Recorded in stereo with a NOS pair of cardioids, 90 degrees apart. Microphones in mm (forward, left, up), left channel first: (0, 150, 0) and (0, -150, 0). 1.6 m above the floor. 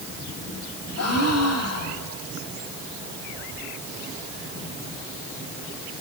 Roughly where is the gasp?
Ahead left.